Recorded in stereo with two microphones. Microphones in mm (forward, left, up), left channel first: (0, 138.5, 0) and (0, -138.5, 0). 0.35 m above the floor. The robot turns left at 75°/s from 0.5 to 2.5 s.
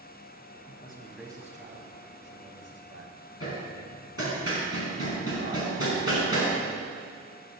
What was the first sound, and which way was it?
A man speaking, 35° left.